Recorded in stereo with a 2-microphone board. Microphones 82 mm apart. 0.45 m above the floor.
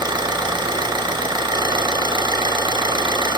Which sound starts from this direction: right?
An engine running, at 0.0 s.